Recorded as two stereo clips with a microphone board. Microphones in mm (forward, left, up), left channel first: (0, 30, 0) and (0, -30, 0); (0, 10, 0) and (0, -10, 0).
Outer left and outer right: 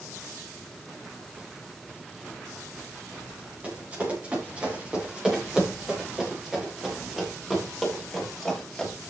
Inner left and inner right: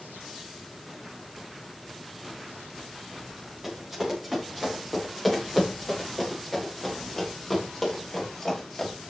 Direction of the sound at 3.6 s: 25° right (ahead or behind).